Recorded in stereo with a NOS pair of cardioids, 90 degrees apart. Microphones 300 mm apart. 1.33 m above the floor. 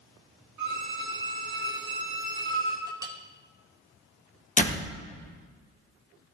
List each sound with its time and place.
0.6 s a violin: 70° right, 2.5 m
2.9 s a clink: 15° right, 1.3 m
4.6 s a door slam: 25° left, 1.3 m